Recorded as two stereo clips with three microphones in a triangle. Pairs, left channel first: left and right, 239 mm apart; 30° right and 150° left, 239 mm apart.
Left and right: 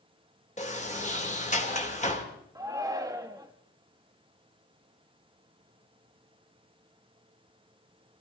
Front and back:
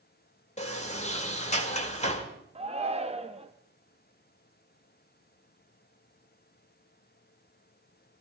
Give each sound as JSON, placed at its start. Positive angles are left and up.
{"t": 0.6, "sound": "a sliding door", "azimuth_deg": 30, "distance_m": 1.9}
{"t": 2.5, "sound": "a shout", "azimuth_deg": -160, "distance_m": 0.7}